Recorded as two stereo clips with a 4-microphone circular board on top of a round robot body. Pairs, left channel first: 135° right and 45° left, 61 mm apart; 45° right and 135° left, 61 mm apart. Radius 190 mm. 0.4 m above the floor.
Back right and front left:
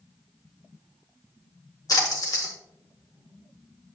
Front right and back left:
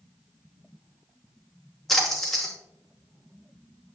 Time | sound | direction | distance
1.9 | a splash | 130° right | 1.9 m